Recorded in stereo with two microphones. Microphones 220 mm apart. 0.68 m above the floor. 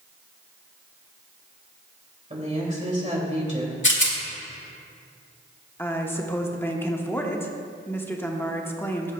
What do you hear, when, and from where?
2.3 s a woman speaking: 30° right (ahead or behind), 2.5 m
3.8 s a rattle: 60° left (ahead or behind), 1.6 m
5.8 s a woman speaking: 10° left (ahead or behind), 1.0 m